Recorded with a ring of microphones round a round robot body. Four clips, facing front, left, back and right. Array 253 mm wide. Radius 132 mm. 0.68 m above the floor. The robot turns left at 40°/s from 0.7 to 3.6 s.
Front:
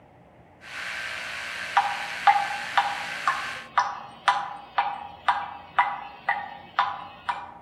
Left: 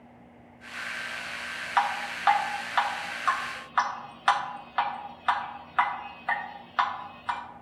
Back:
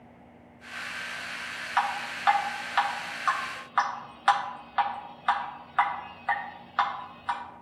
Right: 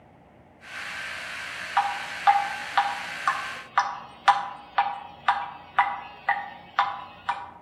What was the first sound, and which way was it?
Dripping, 20° left.